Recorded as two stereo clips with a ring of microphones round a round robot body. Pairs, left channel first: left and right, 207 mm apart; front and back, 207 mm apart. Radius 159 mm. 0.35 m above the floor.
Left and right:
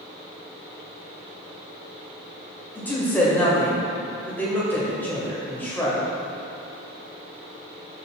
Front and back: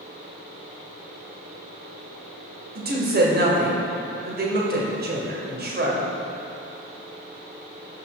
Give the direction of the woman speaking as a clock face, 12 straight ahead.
6 o'clock.